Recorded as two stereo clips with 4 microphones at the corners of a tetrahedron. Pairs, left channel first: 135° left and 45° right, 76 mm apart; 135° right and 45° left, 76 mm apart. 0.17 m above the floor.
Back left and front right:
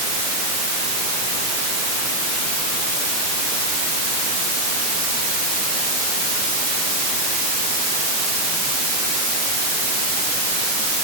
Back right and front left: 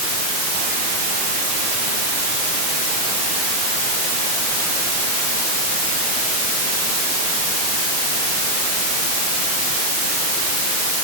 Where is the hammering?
I don't hear hammering.